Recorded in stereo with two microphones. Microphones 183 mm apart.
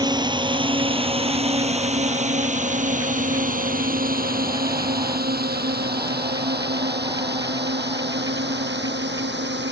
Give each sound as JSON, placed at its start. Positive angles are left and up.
{"t": 0.0, "sound": "a drone", "side_deg": -20}